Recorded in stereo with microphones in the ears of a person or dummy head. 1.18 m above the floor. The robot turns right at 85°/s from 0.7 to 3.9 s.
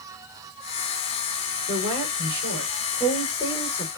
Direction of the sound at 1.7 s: 125° right.